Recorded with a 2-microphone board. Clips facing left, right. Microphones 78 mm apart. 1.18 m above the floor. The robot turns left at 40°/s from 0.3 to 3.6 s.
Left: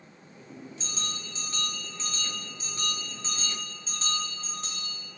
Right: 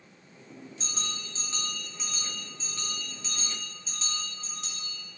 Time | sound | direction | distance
0.8 | a bell | 120° right | 2.5 m